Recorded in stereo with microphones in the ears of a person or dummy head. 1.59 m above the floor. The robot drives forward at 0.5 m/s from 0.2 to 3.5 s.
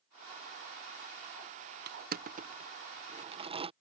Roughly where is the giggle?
I don't hear a giggle.